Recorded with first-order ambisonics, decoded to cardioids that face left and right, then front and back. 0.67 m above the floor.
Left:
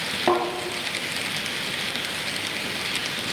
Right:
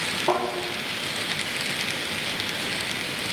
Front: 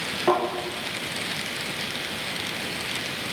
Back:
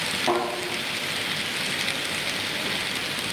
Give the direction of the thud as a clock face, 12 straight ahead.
9 o'clock.